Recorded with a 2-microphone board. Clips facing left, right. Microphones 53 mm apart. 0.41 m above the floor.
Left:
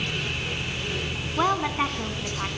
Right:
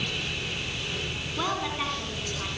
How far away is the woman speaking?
About 3.5 m.